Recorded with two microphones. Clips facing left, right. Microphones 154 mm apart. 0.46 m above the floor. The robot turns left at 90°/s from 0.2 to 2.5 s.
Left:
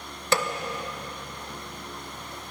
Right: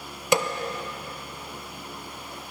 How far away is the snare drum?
About 0.6 m.